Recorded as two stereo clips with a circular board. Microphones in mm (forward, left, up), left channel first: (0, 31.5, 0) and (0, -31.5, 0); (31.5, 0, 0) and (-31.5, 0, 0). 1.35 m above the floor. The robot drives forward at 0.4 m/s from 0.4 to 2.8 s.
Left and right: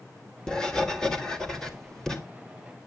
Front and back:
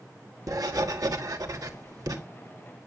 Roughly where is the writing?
Behind.